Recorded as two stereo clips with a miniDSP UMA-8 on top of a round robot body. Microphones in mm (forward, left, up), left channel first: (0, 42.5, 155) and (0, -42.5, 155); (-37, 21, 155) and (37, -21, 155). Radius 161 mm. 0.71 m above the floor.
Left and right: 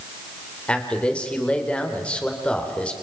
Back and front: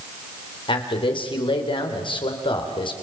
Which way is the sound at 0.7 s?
165° left.